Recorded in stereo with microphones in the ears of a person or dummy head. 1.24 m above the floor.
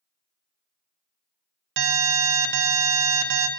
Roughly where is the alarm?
Right.